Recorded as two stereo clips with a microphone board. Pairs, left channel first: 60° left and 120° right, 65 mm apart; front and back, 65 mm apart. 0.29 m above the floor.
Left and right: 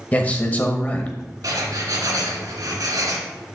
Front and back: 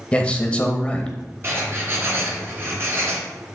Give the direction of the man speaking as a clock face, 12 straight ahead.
11 o'clock.